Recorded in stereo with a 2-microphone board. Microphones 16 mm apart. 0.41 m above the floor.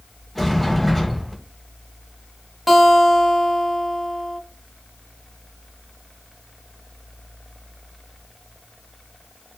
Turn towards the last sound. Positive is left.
turn(degrees=5)  # may be behind; listen again after turning